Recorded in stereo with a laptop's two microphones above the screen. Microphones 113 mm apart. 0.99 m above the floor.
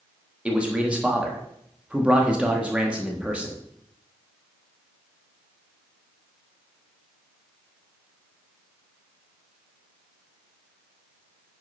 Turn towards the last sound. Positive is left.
turn(degrees=-10)  # may be behind; listen again after turning